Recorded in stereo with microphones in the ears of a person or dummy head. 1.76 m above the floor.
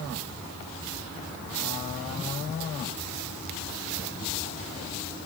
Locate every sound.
Only background noise.